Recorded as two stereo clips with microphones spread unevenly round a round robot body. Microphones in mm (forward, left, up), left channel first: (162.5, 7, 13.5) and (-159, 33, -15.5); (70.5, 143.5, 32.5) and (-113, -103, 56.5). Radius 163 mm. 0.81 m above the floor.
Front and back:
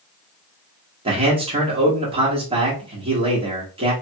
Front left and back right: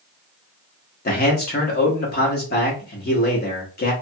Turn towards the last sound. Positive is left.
turn(degrees=105)